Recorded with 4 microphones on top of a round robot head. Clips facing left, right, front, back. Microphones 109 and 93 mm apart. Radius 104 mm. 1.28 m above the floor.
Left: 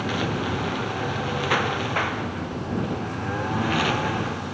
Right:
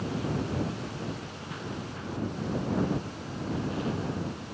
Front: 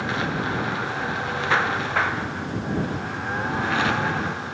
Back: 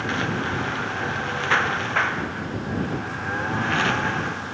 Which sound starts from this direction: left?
A lawn mower, at 0.0 s.